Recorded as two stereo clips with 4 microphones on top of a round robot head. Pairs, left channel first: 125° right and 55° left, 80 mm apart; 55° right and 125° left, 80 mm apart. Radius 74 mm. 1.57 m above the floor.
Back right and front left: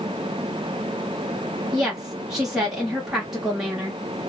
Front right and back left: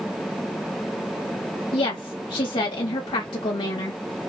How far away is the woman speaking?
About 1.2 m.